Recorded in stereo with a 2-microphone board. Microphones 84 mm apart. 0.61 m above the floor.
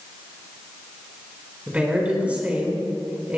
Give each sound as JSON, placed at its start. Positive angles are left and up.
{"t": 1.7, "sound": "a woman speaking", "side_deg": -20, "distance_m": 4.5}